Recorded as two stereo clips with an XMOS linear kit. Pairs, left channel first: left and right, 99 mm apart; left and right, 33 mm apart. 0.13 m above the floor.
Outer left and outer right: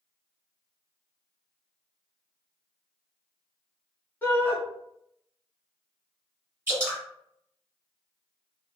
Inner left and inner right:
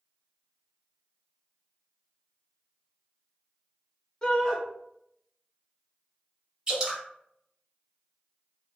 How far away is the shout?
About 1.1 m.